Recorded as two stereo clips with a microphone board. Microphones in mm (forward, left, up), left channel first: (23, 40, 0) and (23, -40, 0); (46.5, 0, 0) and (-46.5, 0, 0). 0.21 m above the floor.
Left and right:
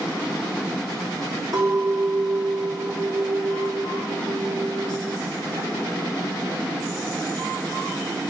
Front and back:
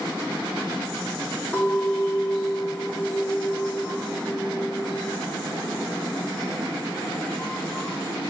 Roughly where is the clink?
Ahead right.